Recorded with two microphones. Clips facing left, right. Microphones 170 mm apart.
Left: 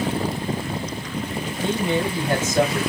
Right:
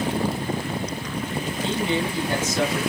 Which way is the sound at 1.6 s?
45° left (ahead or behind).